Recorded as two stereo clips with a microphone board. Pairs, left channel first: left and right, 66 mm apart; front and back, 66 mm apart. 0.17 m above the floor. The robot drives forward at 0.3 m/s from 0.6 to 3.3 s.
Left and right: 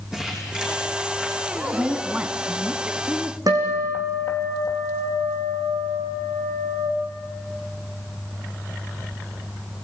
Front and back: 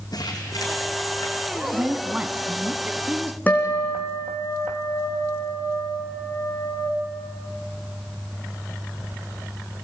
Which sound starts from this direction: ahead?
Crumpling, at 0.1 s.